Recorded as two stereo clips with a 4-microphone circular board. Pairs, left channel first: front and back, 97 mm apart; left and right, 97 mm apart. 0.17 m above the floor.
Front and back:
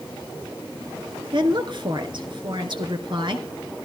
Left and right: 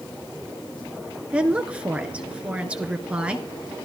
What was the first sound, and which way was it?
A woman speaking, 165° right.